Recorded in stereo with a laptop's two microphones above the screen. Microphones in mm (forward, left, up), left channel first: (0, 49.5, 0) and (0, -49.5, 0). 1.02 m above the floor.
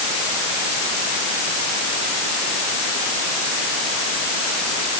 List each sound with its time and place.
Only background noise.